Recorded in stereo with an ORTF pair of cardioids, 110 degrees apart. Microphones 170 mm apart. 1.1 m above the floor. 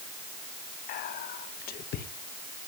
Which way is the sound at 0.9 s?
65° left.